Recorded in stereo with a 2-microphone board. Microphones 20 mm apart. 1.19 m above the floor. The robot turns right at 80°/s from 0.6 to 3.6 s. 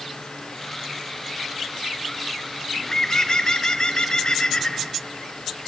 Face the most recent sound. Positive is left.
turn(degrees=100)